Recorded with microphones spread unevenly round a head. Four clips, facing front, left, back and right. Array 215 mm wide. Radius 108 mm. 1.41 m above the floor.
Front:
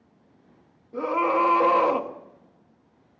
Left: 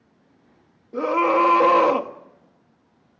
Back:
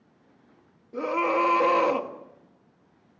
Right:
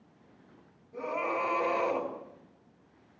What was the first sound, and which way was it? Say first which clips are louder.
A scream: left 13 dB, front 2 dB; 115° left.